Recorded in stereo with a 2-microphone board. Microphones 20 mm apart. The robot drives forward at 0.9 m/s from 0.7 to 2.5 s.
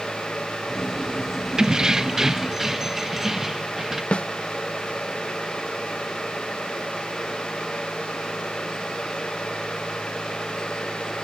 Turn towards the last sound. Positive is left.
turn(degrees=70)  # may be behind; listen again after turning